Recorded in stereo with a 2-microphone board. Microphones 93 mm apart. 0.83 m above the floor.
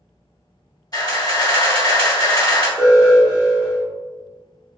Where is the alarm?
15° right (ahead or behind), 0.9 m.